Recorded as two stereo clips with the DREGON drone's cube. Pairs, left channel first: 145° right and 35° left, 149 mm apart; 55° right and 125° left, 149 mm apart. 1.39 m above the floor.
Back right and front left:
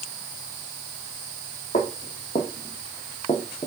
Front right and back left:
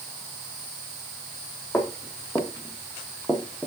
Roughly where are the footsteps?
Behind right.